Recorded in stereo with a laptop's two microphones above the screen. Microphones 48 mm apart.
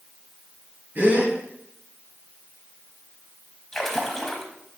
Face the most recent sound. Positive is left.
turn(degrees=5)  # may be behind; listen again after turning